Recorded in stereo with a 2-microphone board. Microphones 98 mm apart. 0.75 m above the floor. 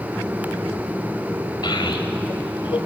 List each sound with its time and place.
1.6 s a child speaking: 50° left (ahead or behind), 3.5 m; by 2.8 s 60° left (ahead or behind), 4 m